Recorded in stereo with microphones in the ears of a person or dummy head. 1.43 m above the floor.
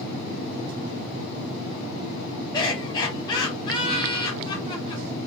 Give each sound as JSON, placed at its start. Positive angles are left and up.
{"t": 2.5, "sound": "laughter", "side_deg": 20, "distance_m": 1.0}